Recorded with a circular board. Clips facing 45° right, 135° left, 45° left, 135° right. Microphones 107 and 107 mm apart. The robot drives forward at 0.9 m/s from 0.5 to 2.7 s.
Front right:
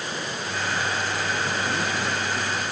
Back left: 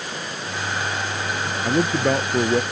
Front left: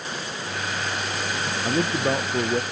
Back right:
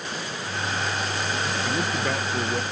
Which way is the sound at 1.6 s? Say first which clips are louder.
Back left 7 dB, front left 6 dB; 105° left.